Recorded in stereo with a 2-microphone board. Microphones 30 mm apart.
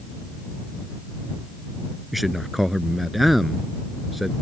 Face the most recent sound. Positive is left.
turn(degrees=0)  # may be behind; listen again after turning